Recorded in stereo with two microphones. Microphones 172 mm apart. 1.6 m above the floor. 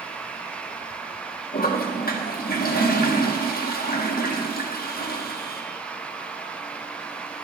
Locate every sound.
1.5 s a toilet flushing: 60° left (ahead or behind), 1.6 m